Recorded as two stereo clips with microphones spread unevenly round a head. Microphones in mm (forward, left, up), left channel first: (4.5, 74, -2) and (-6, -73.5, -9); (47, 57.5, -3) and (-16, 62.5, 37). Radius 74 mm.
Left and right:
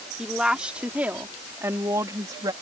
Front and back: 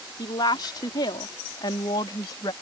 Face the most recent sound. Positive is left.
turn(degrees=-30)